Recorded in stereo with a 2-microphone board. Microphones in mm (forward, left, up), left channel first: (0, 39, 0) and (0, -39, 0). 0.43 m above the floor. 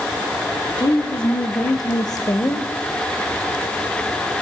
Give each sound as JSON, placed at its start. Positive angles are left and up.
{"t": 0.8, "sound": "a woman speaking", "side_deg": 70, "distance_m": 3.5}